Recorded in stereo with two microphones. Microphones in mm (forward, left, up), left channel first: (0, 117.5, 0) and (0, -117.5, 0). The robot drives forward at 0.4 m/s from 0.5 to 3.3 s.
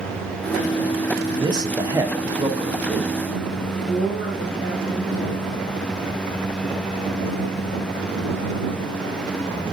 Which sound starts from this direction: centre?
A man speaking, at 1.4 s.